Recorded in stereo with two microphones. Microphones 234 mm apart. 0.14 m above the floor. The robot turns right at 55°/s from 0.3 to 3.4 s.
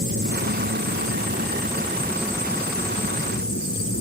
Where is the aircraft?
55° right (ahead or behind); by 4.0 s 60° left (ahead or behind).